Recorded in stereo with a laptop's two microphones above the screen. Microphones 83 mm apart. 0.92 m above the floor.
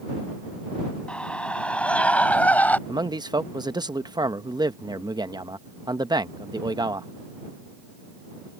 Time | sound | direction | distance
1.1 | a scream | 10° left (ahead or behind) | ?
2.9 | a man speaking | 55° right (ahead or behind) | ?